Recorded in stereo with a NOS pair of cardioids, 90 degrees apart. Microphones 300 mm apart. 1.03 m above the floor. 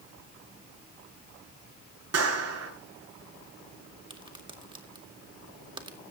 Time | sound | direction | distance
2.1 | a clap | 50° right | 8.5 m
4.1 | a crack | 15° right | 2.0 m